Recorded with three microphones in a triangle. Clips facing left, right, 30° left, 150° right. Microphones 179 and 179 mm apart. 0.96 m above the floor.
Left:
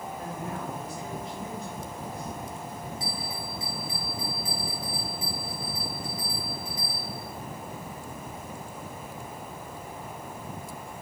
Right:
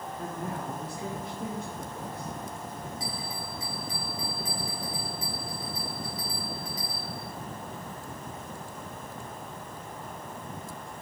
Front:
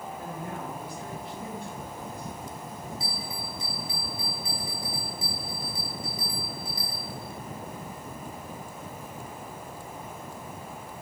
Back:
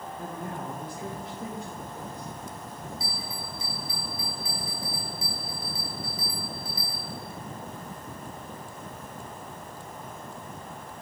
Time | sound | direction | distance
0.2 | a woman speaking | 115° right | 2 m
3.0 | a bell | 40° right | 4 m